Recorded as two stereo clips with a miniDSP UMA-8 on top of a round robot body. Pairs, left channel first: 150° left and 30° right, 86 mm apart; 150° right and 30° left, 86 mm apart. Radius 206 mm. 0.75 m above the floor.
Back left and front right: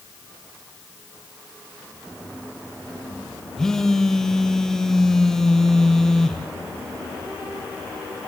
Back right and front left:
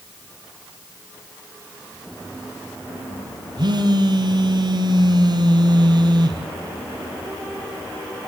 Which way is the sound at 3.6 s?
65° left.